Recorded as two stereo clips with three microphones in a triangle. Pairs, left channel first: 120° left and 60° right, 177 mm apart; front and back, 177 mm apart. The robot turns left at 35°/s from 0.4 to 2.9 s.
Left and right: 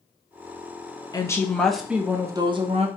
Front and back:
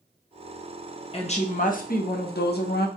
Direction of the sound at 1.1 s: 50° left.